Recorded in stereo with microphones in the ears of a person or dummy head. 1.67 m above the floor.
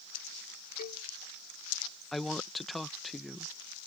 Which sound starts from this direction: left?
A cowbell, at 0.8 s.